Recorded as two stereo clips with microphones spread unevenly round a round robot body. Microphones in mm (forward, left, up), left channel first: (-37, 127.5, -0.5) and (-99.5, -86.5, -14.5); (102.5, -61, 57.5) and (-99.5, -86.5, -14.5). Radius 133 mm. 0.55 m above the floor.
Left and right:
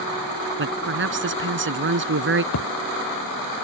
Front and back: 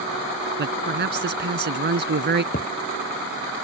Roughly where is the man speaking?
Behind right.